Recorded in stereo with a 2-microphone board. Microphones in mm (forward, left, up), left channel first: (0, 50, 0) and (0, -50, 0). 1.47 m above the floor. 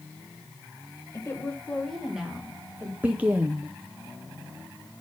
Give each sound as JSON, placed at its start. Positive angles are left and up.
{"t": 1.1, "sound": "a woman speaking", "side_deg": 30, "distance_m": 1.6}
{"t": 3.0, "sound": "a woman speaking", "side_deg": -15, "distance_m": 0.6}